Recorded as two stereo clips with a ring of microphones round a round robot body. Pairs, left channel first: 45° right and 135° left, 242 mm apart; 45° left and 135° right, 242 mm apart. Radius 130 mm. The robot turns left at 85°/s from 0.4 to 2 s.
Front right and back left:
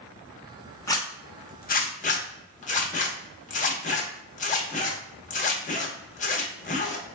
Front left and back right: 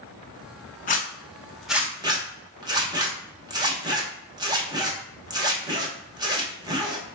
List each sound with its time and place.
0.9 s a zipper: 25° left, 0.9 m; by 7.0 s 75° right, 0.9 m